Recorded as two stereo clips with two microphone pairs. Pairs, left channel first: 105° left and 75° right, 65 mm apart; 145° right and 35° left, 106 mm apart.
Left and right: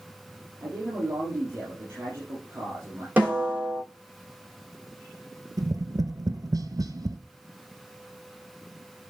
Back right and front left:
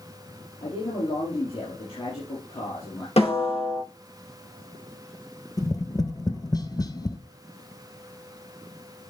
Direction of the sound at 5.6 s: 95° right.